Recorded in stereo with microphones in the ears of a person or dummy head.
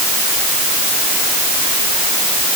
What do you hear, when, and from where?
Only background noise.